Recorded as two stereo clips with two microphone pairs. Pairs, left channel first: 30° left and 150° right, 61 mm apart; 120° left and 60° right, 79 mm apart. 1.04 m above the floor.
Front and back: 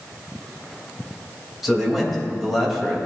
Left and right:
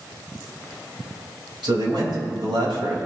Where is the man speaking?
60° right, 4.5 m.